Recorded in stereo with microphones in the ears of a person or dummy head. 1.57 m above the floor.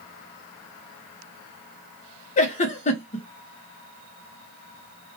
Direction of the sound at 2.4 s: 35° left (ahead or behind).